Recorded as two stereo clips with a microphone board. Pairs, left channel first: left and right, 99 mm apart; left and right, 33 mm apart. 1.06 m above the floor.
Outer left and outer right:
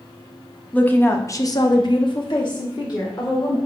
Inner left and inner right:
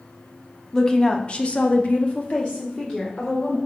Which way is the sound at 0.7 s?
15° left (ahead or behind).